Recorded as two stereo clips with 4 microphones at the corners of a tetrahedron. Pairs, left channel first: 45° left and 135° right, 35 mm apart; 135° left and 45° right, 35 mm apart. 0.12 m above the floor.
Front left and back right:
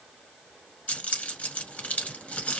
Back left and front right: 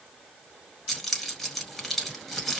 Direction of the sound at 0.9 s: 50° left.